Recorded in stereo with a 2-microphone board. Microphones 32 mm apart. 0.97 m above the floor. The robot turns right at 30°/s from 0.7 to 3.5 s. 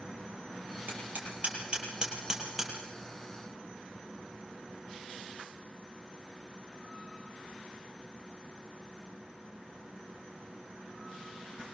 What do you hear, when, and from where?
0.9 s hammering: 55° right (ahead or behind), 8 m; by 2.7 s centre (ahead or behind), 8 m